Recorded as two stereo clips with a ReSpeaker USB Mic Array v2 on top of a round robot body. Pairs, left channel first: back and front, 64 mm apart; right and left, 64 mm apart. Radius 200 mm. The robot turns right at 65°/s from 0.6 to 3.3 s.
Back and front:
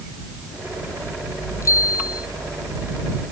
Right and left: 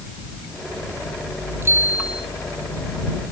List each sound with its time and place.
1.6 s a bicycle bell: 135° left; by 2.3 s straight behind